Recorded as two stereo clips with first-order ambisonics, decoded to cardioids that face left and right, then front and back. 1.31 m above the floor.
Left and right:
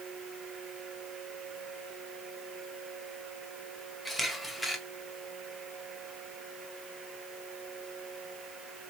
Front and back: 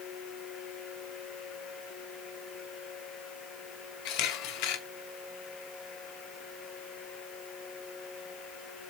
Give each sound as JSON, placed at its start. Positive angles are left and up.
{"t": 4.0, "sound": "a camera shutter", "azimuth_deg": 5, "distance_m": 0.8}